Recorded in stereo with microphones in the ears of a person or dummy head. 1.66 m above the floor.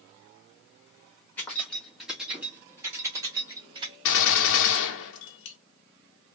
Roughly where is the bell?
I don't hear a bell.